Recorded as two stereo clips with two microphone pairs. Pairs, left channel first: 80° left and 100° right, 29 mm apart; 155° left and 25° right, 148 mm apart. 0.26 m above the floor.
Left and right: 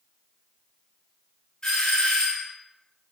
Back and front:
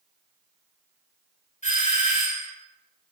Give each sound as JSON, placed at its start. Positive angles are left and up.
{"t": 1.6, "sound": "a doorbell", "azimuth_deg": 145, "distance_m": 3.0}